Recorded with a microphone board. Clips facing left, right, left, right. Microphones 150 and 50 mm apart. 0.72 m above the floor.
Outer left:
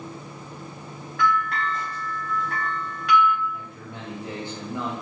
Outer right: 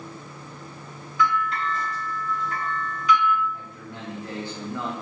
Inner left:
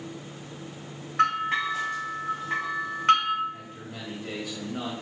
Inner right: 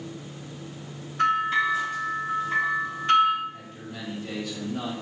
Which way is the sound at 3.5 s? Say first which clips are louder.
Outer left 1 dB, inner right 1 dB; 20° left (ahead or behind).